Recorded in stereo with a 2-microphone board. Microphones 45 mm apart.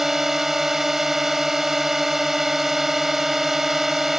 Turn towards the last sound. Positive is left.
turn(degrees=-5)  # may be behind; listen again after turning